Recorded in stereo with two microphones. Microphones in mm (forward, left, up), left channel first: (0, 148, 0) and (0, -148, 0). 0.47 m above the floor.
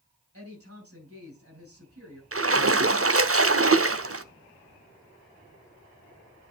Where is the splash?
50° right (ahead or behind), 0.7 m.